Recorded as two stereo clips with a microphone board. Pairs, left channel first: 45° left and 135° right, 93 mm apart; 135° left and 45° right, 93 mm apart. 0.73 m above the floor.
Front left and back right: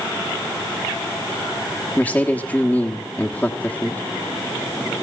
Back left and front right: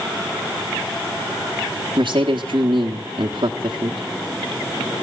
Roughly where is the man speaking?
Ahead right.